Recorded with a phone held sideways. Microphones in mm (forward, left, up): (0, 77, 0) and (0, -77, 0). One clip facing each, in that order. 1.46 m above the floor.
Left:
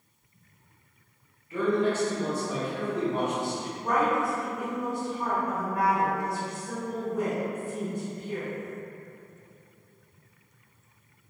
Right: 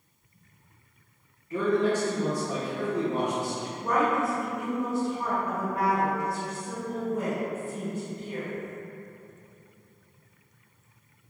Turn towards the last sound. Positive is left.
turn(degrees=-30)  # may be behind; listen again after turning